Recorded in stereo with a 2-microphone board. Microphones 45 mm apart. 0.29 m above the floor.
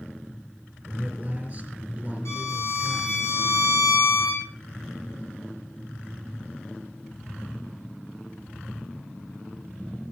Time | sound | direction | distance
0.9 | a man speaking | 30° right (ahead or behind) | 5 m
2.2 | a violin | 75° left (ahead or behind) | 7 m